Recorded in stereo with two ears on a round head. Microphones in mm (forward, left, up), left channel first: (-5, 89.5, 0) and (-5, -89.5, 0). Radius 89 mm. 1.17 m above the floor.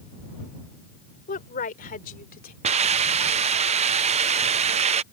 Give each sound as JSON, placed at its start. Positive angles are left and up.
{"t": 1.3, "sound": "a woman speaking", "side_deg": 45}
{"t": 2.6, "sound": "a hiss", "side_deg": -30}